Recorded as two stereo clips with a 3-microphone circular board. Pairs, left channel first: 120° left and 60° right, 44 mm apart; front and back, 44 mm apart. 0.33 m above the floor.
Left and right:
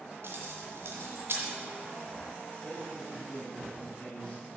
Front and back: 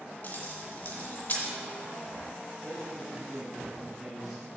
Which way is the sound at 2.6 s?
95° left.